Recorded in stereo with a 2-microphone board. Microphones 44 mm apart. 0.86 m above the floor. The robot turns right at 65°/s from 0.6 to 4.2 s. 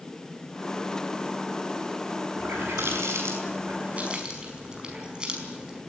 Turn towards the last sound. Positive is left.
turn(degrees=-20)  # may be behind; listen again after turning